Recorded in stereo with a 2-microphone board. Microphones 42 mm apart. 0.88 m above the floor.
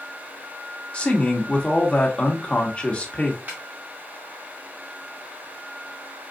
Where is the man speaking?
25° left (ahead or behind), 1.4 m.